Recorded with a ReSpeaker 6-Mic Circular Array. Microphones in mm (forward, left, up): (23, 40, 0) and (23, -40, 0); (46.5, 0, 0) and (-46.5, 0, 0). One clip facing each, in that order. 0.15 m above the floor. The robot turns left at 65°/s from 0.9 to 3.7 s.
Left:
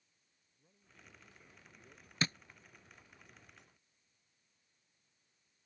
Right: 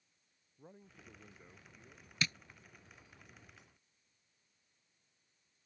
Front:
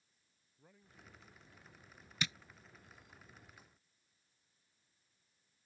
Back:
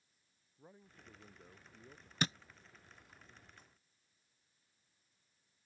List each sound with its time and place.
0.6 s a man speaking: 115° right; by 2.1 s 165° left
2.2 s tapping: 140° left; by 2.4 s 130° left